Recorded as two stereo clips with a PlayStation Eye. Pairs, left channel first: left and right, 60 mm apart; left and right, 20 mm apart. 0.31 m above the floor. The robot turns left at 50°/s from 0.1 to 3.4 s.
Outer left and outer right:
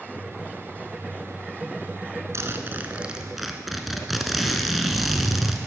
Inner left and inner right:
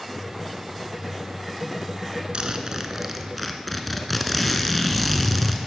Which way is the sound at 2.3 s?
125° right.